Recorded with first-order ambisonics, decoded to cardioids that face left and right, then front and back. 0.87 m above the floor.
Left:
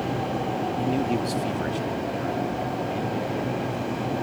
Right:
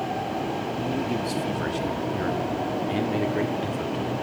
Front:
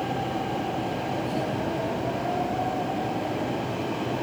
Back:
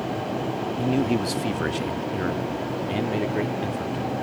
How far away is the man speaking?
About 1.5 m.